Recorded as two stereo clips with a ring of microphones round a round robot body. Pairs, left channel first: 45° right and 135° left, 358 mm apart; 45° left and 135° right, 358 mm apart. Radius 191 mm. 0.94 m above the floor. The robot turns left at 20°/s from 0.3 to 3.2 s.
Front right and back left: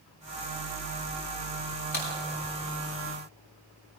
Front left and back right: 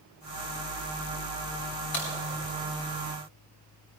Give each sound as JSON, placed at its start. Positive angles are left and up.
{"t": 1.9, "sound": "a crack", "azimuth_deg": 20, "distance_m": 7.5}